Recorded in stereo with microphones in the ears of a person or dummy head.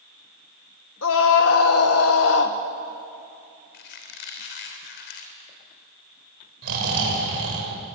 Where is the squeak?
65° left (ahead or behind), 3 m.